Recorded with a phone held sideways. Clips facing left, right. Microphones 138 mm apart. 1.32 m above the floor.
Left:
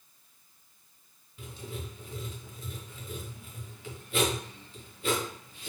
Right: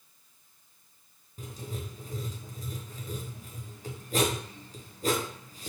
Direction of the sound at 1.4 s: 40° right (ahead or behind).